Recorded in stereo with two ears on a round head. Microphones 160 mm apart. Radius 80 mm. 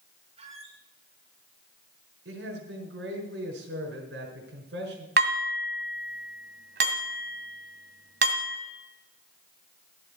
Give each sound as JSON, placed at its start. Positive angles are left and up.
{"t": 0.4, "sound": "a squeak", "side_deg": -35, "distance_m": 4.0}
{"t": 2.2, "sound": "a man speaking", "side_deg": -65, "distance_m": 5.0}
{"t": 5.2, "sound": "dishes clattering", "side_deg": -65, "distance_m": 2.0}